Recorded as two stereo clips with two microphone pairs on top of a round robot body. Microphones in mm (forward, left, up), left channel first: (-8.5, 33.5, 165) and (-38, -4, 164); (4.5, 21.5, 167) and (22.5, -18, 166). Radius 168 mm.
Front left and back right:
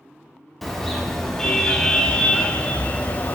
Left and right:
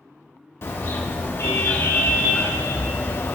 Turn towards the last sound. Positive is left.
turn(degrees=95)